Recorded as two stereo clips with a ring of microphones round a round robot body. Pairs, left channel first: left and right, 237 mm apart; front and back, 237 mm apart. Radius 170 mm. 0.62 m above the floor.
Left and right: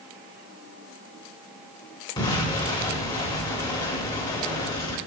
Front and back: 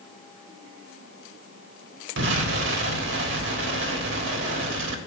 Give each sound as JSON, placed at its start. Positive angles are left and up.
{"t": 2.2, "sound": "an explosion", "azimuth_deg": 160, "distance_m": 1.4}